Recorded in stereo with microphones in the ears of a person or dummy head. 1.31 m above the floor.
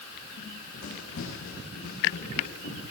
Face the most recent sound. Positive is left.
turn(degrees=60)  # may be behind; listen again after turning